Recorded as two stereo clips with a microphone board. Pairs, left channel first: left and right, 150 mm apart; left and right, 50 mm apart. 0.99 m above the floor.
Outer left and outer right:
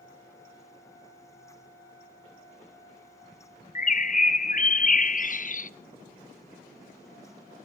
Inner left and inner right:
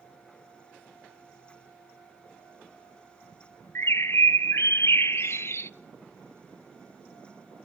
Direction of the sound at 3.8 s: 60° left (ahead or behind).